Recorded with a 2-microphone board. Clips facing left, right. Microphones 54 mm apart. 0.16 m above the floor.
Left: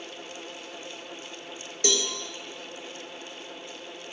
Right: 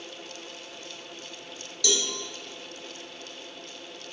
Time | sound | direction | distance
1.8 | a cowbell | 40° left (ahead or behind) | 1.2 m